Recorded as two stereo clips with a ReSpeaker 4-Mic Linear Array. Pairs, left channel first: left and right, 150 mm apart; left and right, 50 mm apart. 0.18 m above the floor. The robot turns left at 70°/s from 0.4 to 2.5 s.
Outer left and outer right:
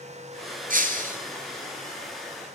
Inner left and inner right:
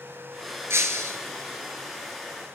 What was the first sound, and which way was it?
Breaking glass, 80° right.